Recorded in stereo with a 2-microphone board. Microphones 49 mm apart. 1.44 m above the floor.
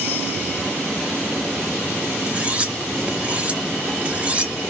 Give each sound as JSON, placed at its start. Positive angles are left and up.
{"t": 2.3, "sound": "cutlery clinking", "side_deg": -25, "distance_m": 0.5}